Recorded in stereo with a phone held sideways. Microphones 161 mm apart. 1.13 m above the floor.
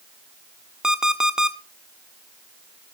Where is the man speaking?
I don't hear a man speaking.